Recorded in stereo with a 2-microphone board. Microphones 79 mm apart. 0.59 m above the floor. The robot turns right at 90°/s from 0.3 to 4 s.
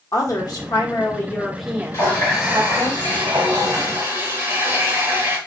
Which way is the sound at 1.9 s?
145° left.